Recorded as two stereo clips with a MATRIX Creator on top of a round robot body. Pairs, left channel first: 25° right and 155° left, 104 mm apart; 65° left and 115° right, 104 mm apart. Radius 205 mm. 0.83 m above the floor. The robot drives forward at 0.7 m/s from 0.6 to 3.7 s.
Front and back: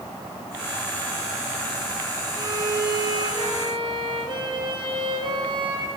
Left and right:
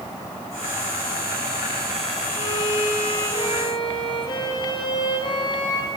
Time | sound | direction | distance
2.4 | a violin | 105° left | 4.5 m